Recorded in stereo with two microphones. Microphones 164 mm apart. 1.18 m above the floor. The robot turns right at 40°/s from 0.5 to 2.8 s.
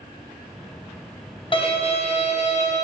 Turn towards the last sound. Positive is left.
turn(degrees=100)